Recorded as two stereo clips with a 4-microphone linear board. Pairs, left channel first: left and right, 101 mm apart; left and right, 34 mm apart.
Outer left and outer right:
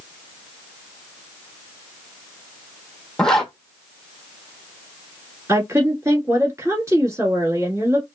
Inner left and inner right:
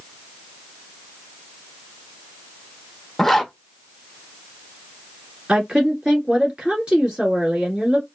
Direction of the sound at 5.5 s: 30° right (ahead or behind).